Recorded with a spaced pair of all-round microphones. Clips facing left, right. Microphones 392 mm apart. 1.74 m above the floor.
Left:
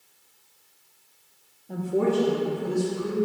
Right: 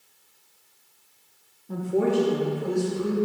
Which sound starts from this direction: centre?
A woman speaking, at 1.7 s.